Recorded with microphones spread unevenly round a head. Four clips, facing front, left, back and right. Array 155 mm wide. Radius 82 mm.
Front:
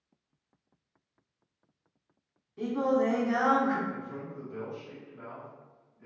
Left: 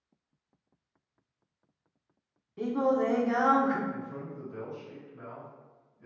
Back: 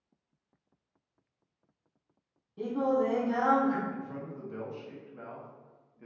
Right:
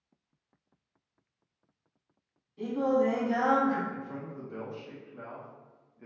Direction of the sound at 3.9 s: 115° right.